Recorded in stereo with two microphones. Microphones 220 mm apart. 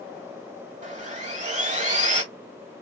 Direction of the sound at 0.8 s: 35° right (ahead or behind).